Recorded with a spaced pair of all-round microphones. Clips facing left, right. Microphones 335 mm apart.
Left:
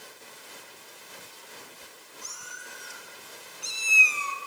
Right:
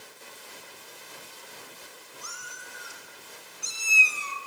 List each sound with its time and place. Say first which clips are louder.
2.2 s a cat meowing: right 1 dB; 75° right (ahead or behind), 4 m; by 4.4 s 40° right (ahead or behind), 1.8 m